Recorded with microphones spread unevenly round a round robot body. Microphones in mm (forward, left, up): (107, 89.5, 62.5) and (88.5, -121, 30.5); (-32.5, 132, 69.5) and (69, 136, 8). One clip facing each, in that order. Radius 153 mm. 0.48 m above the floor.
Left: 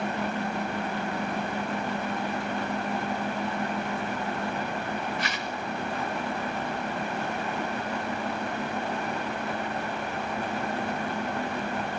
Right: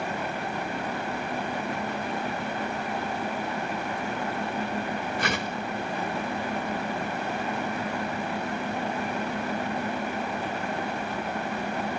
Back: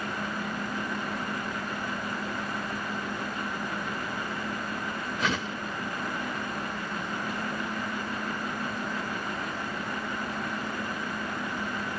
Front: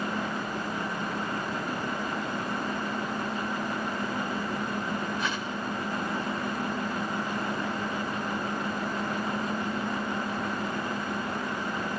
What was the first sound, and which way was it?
A whoosh, 145° right.